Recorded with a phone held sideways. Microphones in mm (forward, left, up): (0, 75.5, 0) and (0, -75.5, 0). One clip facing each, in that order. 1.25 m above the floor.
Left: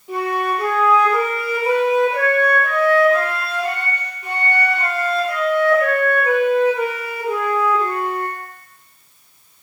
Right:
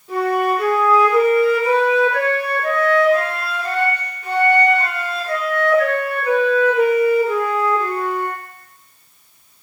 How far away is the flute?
About 1.6 m.